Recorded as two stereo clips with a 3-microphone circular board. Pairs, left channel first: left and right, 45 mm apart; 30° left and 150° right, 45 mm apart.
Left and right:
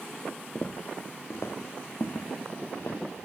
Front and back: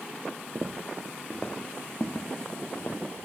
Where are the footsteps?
150° left, 0.6 m; by 3.2 s 60° left, 1.7 m.